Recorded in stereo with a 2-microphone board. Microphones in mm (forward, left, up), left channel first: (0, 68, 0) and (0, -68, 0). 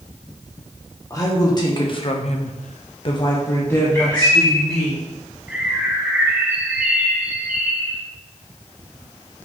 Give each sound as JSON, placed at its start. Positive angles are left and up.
{"t": 1.1, "sound": "a woman speaking", "side_deg": 25, "distance_m": 1.8}
{"t": 3.9, "sound": "a bird", "side_deg": 25, "distance_m": 2.5}
{"t": 5.5, "sound": "a bird", "side_deg": -10, "distance_m": 1.2}